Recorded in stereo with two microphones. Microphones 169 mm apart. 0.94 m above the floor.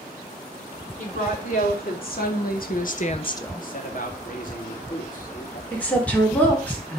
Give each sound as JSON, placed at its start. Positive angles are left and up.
{"t": 1.0, "sound": "a woman speaking", "side_deg": 60, "distance_m": 3.0}
{"t": 3.6, "sound": "a man speaking", "side_deg": 60, "distance_m": 2.0}
{"t": 5.7, "sound": "a woman speaking", "side_deg": 10, "distance_m": 3.0}